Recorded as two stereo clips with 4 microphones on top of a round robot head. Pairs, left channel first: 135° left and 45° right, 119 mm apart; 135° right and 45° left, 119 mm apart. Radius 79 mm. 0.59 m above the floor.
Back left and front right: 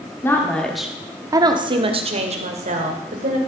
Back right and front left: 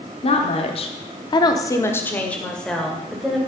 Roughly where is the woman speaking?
Behind.